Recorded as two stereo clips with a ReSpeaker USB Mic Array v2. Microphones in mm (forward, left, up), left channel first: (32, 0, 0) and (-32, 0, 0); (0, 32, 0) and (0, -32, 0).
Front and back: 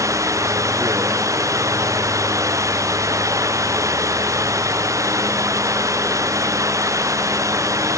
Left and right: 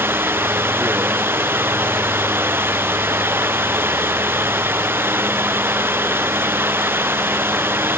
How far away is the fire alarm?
No fire alarm in this recording.